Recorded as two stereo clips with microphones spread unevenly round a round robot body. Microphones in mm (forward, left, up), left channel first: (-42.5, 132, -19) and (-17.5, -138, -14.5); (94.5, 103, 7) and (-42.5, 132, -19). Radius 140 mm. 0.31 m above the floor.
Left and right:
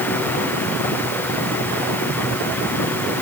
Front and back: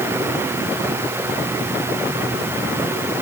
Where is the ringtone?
I don't hear a ringtone.